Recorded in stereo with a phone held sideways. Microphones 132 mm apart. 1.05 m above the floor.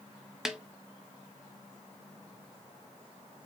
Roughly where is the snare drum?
Centre.